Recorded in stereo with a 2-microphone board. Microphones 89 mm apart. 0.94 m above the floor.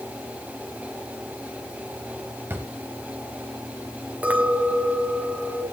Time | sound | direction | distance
2.5 | a drawer | 25° right (ahead or behind) | 3 m
4.2 | a clink | 15° right (ahead or behind) | 3.5 m